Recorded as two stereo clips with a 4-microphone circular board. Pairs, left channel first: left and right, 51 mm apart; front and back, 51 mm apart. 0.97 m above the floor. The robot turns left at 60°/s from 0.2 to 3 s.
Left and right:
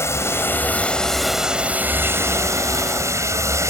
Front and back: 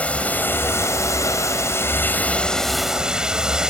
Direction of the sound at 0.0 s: 65° left.